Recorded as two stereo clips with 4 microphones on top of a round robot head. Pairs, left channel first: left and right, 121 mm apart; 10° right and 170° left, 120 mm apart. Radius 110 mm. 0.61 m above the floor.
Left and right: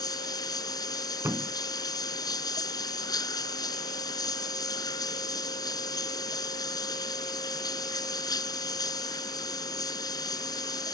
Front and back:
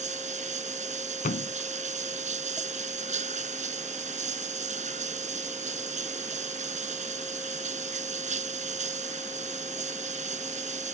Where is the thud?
15° right.